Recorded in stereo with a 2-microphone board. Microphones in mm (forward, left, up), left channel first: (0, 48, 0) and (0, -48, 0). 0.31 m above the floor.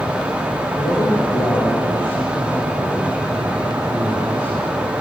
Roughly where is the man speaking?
Left.